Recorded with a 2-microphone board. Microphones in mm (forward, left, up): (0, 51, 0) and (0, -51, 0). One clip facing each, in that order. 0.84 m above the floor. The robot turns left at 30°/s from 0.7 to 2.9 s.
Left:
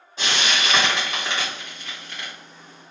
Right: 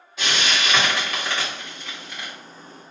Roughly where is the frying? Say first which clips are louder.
Even; left.